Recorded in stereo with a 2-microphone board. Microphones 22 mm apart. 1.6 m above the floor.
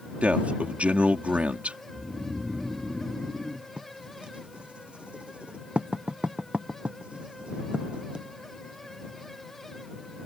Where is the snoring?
30° right (ahead or behind).